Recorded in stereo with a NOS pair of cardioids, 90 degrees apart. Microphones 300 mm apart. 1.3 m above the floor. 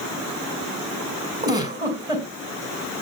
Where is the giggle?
10° right, 4 m.